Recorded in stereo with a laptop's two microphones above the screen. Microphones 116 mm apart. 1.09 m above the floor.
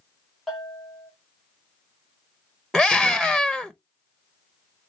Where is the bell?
Centre (ahead or behind), 1.3 m.